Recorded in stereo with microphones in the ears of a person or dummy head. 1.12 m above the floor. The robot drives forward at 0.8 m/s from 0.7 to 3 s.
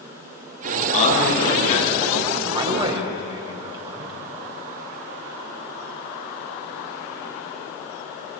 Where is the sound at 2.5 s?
30° right (ahead or behind), 3.5 m; by 4.2 s 25° right (ahead or behind), 4 m.